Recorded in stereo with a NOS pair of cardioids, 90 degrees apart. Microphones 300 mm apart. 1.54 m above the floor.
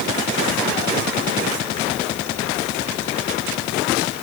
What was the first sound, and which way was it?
Only background noise.